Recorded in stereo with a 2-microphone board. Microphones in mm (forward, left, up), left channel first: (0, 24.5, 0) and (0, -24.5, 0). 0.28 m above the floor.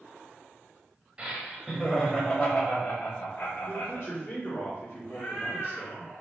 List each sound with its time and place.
1.2 s laughter: 20° right (ahead or behind), 1.0 m; by 4.1 s 60° left (ahead or behind), 1.7 m
3.6 s a man speaking: 45° left (ahead or behind), 1.4 m
5.1 s a cat meowing: 55° left (ahead or behind), 1.8 m